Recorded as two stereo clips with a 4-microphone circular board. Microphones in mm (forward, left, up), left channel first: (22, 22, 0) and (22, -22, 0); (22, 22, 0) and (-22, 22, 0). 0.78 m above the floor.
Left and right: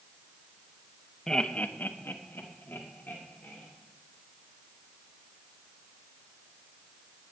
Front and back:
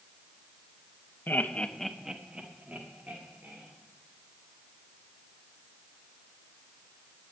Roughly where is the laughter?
Ahead.